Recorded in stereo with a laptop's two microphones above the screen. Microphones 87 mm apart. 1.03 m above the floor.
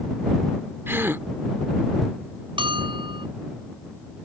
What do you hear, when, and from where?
0.9 s a gasp: 30° right (ahead or behind)
2.6 s a bell: 70° right (ahead or behind)